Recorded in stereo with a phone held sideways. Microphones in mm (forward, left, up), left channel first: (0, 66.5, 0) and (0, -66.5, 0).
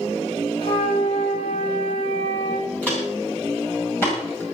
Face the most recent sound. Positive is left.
turn(degrees=25)  # may be behind; listen again after turning